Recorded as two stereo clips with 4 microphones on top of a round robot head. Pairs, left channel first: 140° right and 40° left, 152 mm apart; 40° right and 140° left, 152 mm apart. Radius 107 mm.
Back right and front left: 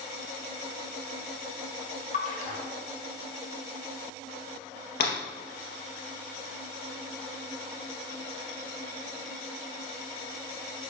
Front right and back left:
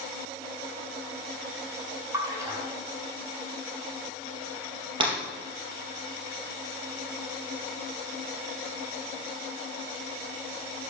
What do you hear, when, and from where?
2.1 s a splash: 155° right, 2.5 m
5.0 s breaking glass: 160° right, 3.5 m